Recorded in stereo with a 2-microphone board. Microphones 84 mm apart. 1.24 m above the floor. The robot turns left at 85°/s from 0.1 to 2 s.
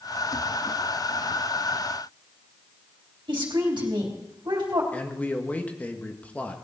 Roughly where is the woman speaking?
Right.